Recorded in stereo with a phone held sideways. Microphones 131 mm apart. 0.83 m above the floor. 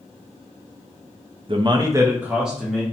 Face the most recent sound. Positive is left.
turn(degrees=5)  # may be behind; listen again after turning